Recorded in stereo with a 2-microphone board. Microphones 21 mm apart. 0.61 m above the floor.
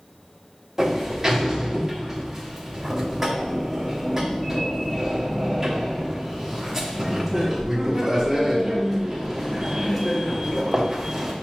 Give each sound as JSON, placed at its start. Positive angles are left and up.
{"t": 0.8, "sound": "a sliding door", "side_deg": -20, "distance_m": 0.8}